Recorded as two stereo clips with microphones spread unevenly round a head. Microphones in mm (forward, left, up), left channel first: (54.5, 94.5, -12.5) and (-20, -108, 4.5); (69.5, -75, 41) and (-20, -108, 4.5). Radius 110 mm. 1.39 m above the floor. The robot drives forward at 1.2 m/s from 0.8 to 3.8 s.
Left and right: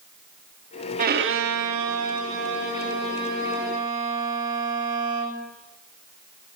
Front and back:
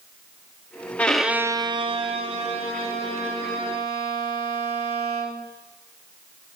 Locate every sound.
1.0 s a violin: 55° right, 0.9 m; by 5.4 s 165° right, 3 m